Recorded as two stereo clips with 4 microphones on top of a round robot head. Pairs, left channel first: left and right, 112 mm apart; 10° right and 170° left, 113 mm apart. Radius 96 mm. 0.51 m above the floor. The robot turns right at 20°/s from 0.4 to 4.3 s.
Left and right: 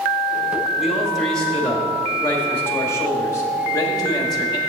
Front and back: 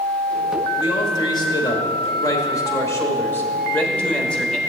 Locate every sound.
0.8 s a man speaking: 5° right, 1.3 m; by 4.6 s 65° left, 1.3 m